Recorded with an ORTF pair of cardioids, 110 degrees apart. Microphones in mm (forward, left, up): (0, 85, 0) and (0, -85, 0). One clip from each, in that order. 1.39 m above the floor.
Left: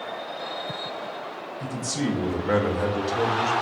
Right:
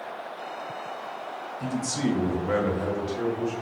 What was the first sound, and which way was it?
A man speaking, straight ahead.